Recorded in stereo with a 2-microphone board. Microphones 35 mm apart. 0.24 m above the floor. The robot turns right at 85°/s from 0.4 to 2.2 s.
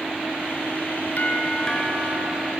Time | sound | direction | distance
1.2 | a doorbell | 125° left | 4 m